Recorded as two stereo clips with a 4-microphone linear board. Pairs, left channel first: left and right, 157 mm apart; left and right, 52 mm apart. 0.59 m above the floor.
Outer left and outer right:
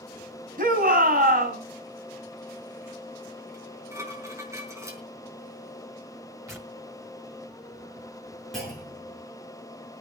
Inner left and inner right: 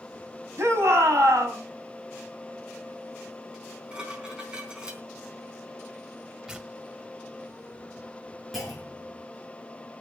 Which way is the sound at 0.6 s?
55° right (ahead or behind).